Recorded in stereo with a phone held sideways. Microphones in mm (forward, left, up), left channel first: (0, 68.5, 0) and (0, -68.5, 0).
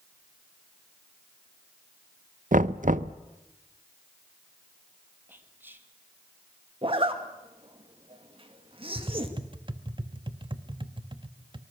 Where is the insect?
No insect in this recording.